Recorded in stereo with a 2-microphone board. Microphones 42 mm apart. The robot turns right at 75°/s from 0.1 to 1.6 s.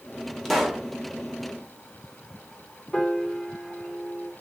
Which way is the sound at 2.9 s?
20° left (ahead or behind).